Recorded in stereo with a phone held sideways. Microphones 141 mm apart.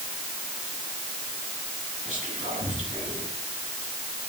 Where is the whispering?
60° right (ahead or behind), 10 m.